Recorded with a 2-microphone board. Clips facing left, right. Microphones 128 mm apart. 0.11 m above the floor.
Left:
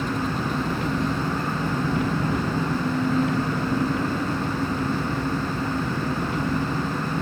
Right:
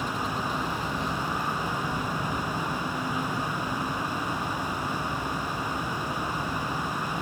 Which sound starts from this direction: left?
An engine running, at 0.0 s.